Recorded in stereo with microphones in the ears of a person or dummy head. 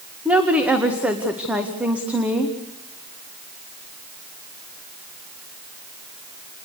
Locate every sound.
0.2 s a woman speaking: 5° right (ahead or behind), 1.9 m